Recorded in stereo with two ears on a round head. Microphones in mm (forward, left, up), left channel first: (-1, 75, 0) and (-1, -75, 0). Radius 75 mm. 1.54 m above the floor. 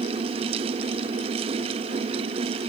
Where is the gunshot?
No gunshot in this recording.